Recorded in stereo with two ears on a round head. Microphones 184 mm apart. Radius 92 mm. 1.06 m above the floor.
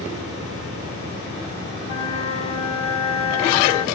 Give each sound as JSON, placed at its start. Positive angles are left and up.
{"t": 1.8, "sound": "a flute", "side_deg": 30, "distance_m": 1.0}